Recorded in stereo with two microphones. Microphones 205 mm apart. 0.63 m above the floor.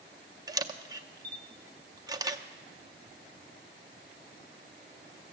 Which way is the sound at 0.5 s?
20° right (ahead or behind).